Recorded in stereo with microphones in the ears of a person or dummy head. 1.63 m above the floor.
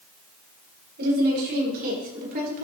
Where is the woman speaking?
55° right (ahead or behind), 6 m; by 2.6 s 45° right (ahead or behind), 4.5 m.